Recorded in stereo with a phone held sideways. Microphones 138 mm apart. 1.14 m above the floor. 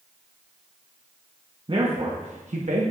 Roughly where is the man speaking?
Right.